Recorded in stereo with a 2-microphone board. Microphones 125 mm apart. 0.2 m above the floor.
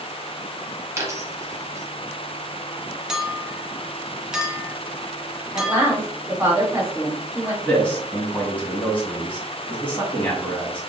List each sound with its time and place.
1.0 s a dropped coin: 25° right (ahead or behind), 1.0 m
3.1 s a clink: 5° right (ahead or behind), 0.6 m
5.5 s a woman speaking: 20° right (ahead or behind), 1.8 m
7.6 s a man speaking: 15° left (ahead or behind), 1.6 m